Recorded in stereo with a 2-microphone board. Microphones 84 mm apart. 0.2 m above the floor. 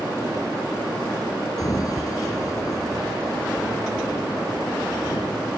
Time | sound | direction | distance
1.6 | a sliding door | 45° left (ahead or behind) | ?